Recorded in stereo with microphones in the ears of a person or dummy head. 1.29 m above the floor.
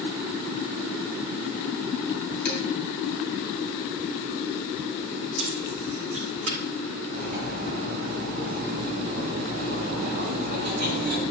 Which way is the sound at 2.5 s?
70° left (ahead or behind).